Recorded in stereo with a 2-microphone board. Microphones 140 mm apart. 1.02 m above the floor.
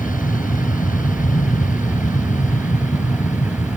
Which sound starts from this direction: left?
An aircraft, at 0.0 s.